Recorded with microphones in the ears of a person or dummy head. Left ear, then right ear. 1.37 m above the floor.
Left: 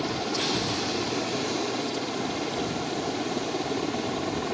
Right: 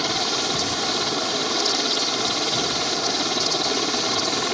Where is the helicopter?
40° right (ahead or behind); by 4.5 s 55° right (ahead or behind).